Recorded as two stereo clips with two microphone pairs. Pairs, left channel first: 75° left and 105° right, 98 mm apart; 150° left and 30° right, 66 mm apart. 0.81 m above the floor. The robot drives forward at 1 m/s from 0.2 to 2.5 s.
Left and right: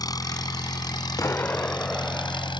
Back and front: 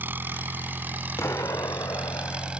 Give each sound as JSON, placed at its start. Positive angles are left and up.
{"t": 0.0, "sound": "an engine running", "azimuth_deg": 30}
{"t": 1.2, "sound": "an explosion", "azimuth_deg": 125}